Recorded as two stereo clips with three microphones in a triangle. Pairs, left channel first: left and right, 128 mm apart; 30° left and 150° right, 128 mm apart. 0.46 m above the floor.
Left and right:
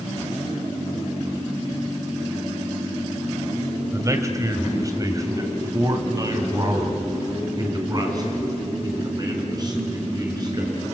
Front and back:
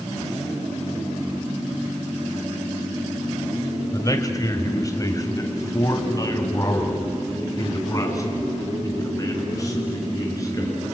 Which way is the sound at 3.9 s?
30° right.